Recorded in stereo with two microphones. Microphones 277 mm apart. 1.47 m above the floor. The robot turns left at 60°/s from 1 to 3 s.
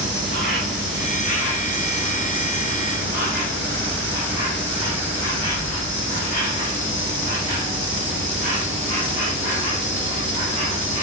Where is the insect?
45° right, 1.7 m; by 11.0 s 165° right, 1.7 m.